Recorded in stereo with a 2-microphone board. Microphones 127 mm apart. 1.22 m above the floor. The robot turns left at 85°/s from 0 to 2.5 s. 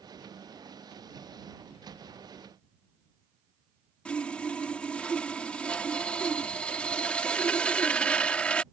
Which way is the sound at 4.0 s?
10° left (ahead or behind).